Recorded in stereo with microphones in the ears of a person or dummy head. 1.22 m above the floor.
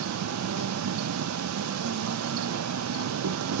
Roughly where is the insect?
Right.